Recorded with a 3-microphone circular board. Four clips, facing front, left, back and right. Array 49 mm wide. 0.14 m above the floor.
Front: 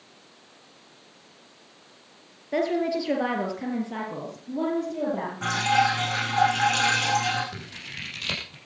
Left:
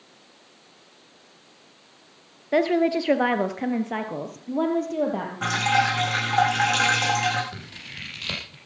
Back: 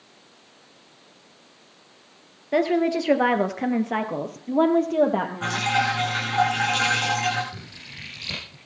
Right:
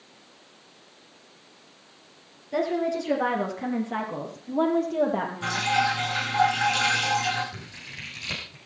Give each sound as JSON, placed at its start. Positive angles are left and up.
{"t": 2.5, "sound": "a woman speaking", "azimuth_deg": 115, "distance_m": 2.5}
{"t": 5.4, "sound": "dripping", "azimuth_deg": 95, "distance_m": 9.0}
{"t": 7.5, "sound": "scissors", "azimuth_deg": 45, "distance_m": 6.0}